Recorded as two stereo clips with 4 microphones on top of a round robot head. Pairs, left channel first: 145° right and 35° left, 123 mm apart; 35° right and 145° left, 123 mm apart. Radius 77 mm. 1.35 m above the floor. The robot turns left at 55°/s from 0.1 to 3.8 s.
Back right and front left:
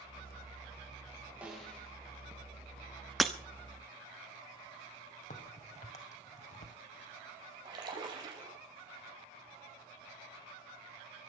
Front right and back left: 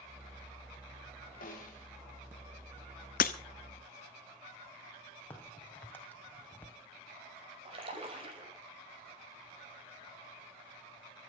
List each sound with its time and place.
1.4 s a snare drum: 45° right, 4.5 m; by 1.9 s 70° right, 4.5 m
3.2 s breaking glass: 50° right, 1.0 m; by 3.3 s 60° right, 1.0 m
5.3 s a crack: 110° right, 2.5 m
7.7 s a splash: 95° left, 5 m